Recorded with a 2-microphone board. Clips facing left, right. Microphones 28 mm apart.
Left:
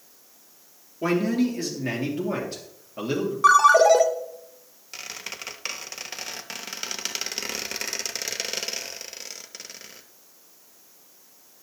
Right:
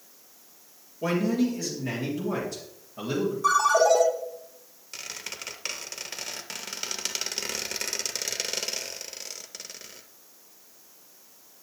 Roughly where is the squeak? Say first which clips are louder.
Left 2 dB; centre.